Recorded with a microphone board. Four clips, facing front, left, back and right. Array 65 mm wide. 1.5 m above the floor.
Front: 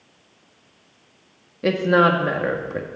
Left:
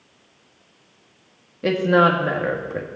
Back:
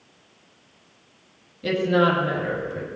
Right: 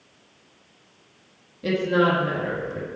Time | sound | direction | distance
1.6 | a woman speaking | 35° left | 2 m